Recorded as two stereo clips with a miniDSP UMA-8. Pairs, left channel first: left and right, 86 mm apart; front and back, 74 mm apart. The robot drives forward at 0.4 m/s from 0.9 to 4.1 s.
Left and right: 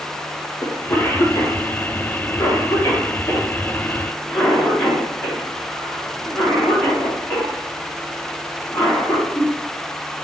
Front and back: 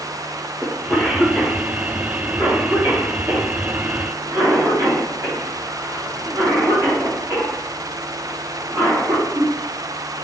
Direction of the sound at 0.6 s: 65° left.